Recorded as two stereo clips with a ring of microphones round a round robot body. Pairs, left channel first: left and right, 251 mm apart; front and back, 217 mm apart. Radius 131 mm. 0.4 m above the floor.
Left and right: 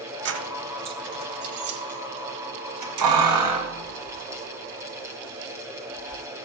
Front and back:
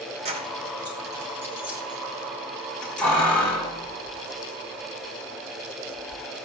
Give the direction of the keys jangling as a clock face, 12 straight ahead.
4 o'clock.